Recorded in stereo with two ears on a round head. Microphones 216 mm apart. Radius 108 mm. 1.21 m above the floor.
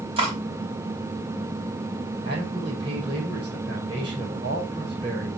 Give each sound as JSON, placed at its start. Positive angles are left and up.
{"t": 0.2, "sound": "cutlery clinking", "side_deg": -25, "distance_m": 4.5}
{"t": 2.2, "sound": "a man speaking", "side_deg": -25, "distance_m": 5.0}